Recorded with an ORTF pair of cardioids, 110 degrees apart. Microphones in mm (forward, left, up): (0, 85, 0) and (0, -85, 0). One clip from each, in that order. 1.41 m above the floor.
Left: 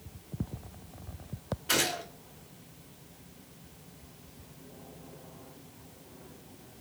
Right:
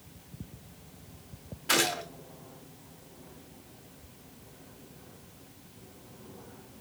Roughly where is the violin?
I don't hear a violin.